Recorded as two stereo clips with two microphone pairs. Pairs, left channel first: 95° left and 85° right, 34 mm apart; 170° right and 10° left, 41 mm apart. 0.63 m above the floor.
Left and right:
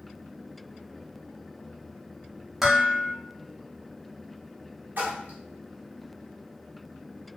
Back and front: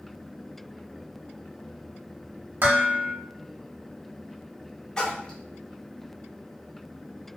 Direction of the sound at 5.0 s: 105° right.